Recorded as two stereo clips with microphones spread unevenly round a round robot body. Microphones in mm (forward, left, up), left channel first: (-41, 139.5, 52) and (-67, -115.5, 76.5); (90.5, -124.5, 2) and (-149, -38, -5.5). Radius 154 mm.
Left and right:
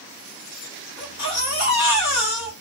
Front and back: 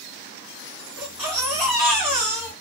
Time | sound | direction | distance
1.0 | a baby crying | 75° left | 1.4 m